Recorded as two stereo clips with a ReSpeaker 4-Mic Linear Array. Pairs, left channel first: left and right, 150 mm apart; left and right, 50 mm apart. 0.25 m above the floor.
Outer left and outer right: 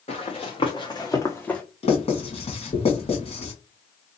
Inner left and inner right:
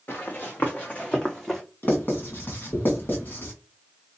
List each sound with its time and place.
0.1 s running footsteps: 45° left (ahead or behind), 1.8 m; by 1.6 s 5° left (ahead or behind), 1.1 m
1.8 s writing: 45° left (ahead or behind), 1.8 m